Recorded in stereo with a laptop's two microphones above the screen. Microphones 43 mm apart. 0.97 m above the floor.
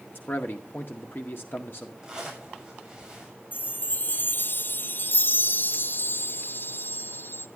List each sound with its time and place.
0.1 s a man speaking: 50° left (ahead or behind), 0.9 m
2.0 s a zipper: 15° right (ahead or behind), 6 m
3.5 s a chime: 50° left (ahead or behind), 0.6 m